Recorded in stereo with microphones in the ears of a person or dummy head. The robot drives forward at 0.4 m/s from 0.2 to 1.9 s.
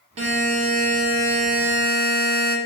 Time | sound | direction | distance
0.2 | a buzzer | 35° right (ahead or behind) | 1.1 m